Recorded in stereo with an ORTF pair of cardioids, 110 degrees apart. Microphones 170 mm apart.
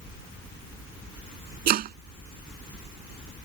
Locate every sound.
1.7 s chopping: 65° right